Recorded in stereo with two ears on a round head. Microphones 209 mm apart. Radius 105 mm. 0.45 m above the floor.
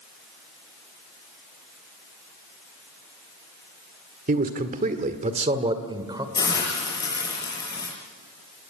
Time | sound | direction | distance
4.3 | a man speaking | 40° right (ahead or behind) | 1.7 m
6.3 | a hiss | 15° left (ahead or behind) | 7.5 m